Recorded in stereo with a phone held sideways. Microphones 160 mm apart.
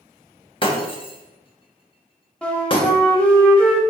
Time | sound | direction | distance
0.6 | breaking glass | 35° left (ahead or behind) | 0.9 m
2.4 | a flute | 5° left (ahead or behind) | 0.8 m